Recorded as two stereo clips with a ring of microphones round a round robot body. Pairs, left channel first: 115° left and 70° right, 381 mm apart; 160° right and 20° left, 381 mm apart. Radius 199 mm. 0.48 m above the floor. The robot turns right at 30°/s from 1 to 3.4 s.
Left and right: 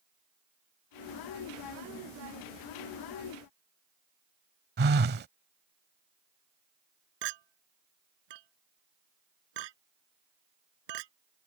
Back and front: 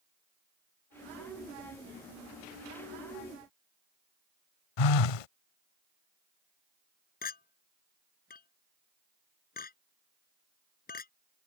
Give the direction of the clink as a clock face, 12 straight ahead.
3 o'clock.